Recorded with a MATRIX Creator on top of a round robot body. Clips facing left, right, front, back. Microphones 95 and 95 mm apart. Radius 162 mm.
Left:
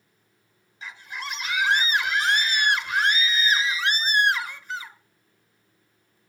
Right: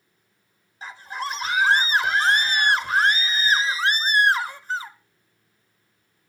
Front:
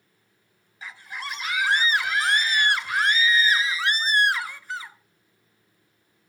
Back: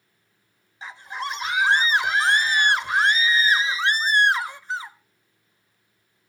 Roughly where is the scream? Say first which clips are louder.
Right 5 dB, back 5 dB; behind right.